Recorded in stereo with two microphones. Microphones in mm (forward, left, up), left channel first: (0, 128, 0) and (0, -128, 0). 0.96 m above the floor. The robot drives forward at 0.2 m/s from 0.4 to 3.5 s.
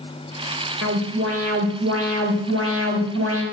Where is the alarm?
70° right (ahead or behind), 4 m; by 3.4 s 65° right (ahead or behind), 4.5 m.